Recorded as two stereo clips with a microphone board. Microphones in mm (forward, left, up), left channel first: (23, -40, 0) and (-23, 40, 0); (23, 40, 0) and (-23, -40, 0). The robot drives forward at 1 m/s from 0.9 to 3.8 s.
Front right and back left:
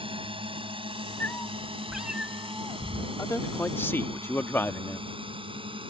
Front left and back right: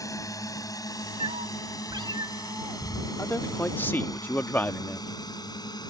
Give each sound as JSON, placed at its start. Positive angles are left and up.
{"t": 0.0, "sound": "a drone", "azimuth_deg": 110}
{"t": 1.2, "sound": "a cat meowing", "azimuth_deg": -120}
{"t": 3.2, "sound": "a man speaking", "azimuth_deg": 0}